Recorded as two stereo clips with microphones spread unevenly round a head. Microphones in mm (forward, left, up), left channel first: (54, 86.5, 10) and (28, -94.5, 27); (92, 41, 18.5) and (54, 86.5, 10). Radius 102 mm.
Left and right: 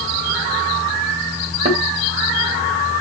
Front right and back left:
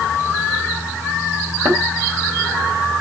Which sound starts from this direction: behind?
A thud, at 1.6 s.